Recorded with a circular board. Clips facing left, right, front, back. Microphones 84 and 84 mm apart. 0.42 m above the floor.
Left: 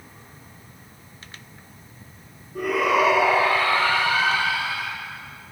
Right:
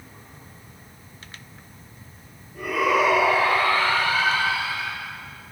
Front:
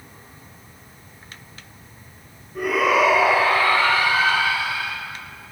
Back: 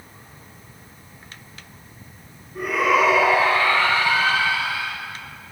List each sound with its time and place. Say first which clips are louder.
2.5 s a shout: left 1 dB, front 1 dB; 90° left, 5.5 m; by 4.9 s 80° left, 8.5 m